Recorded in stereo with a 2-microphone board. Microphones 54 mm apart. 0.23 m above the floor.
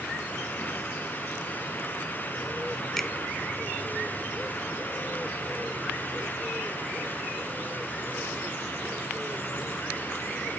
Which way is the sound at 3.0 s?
5° left (ahead or behind).